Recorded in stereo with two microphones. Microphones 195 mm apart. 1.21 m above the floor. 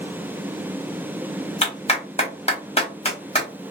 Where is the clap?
30° left (ahead or behind), 1.3 m.